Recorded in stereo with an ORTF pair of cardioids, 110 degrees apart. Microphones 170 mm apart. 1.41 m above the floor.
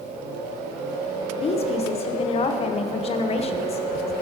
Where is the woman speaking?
35° left, 1.0 m.